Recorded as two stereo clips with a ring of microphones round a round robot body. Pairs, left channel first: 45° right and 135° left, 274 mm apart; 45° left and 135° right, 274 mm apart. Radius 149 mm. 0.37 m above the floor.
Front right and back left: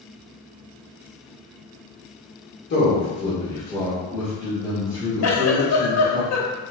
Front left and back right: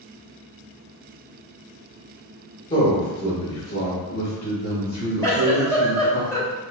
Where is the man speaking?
25° right, 1.1 m; by 6.2 s 80° left, 3 m.